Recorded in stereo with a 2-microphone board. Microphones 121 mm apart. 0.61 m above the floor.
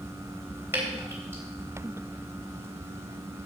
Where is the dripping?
20° right (ahead or behind), 3.5 m.